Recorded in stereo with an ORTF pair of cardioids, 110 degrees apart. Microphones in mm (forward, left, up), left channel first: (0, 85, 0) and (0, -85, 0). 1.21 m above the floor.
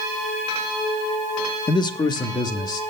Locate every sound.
1.7 s a man speaking: 25° left, 1.2 m